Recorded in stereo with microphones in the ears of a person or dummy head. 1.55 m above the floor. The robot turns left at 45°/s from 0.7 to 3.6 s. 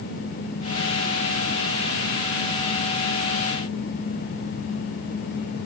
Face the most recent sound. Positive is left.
No sound to turn to.